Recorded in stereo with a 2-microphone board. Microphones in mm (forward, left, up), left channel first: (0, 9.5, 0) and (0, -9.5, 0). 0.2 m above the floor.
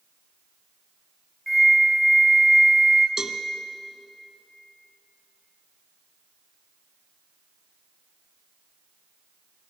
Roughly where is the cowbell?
Right.